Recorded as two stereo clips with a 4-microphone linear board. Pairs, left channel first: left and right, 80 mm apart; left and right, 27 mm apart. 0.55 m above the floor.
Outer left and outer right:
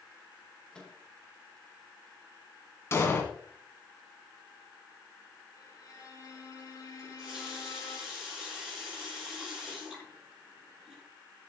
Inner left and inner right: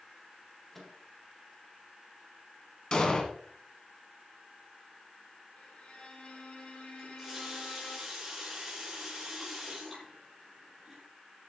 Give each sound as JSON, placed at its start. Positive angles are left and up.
{"t": 0.7, "sound": "a microwave", "side_deg": 10, "distance_m": 1.9}
{"t": 2.9, "sound": "an explosion", "side_deg": 30, "distance_m": 1.8}
{"t": 5.6, "sound": "a violin", "side_deg": 50, "distance_m": 3.0}
{"t": 7.0, "sound": "a running tap", "side_deg": -10, "distance_m": 5.5}